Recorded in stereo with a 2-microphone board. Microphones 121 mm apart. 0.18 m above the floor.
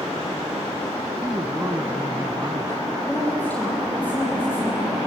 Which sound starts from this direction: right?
A man speaking, at 1.2 s.